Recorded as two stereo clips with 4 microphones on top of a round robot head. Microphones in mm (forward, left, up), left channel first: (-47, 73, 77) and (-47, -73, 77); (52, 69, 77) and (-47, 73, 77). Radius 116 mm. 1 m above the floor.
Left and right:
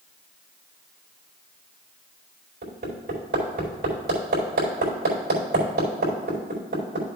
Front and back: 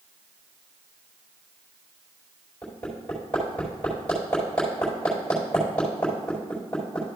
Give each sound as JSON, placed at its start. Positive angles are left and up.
{"t": 2.6, "sound": "hammering", "azimuth_deg": -80, "distance_m": 4.0}